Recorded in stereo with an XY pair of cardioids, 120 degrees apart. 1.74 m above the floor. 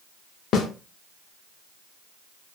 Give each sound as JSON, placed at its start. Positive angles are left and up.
{"t": 0.5, "sound": "a snare drum", "azimuth_deg": 60, "distance_m": 0.6}